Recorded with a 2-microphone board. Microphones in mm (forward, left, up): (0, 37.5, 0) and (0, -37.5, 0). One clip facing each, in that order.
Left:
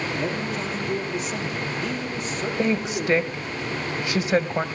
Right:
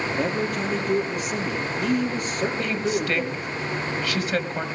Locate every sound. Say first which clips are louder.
0.1 s a man speaking: right 2 dB; 70° right (ahead or behind), 5 m
2.6 s a woman speaking: left 1 dB; 20° left (ahead or behind), 0.9 m